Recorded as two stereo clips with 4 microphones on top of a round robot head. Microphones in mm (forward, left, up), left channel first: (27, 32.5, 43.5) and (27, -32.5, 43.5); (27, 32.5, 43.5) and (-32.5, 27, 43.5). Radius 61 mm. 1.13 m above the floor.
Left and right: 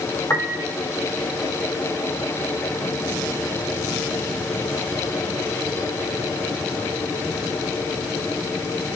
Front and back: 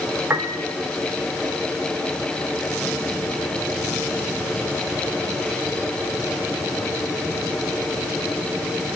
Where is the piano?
135° left, 0.8 m.